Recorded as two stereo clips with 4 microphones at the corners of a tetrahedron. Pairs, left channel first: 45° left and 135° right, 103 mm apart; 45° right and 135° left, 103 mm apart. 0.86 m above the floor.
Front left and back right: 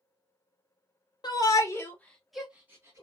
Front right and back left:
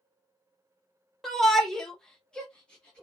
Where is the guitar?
No guitar in this recording.